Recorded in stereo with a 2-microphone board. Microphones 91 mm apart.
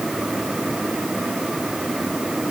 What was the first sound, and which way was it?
Only background noise.